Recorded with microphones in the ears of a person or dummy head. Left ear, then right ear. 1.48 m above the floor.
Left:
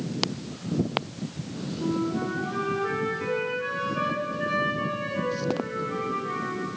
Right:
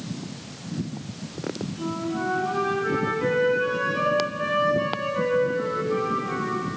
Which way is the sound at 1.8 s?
Centre (ahead or behind).